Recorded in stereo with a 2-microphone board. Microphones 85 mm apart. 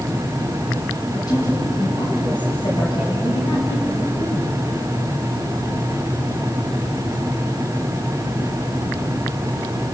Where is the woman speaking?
50° left (ahead or behind), 5 m; by 4.6 s 75° left (ahead or behind), 4.5 m.